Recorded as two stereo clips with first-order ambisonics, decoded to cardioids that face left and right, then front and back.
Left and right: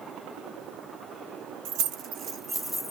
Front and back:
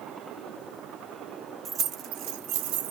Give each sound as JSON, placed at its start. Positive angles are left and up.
{"t": 1.6, "sound": "keys jangling", "azimuth_deg": -115, "distance_m": 0.6}